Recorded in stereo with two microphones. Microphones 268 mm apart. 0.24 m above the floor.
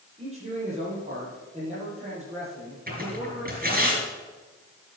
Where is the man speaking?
25° right (ahead or behind), 6.5 m.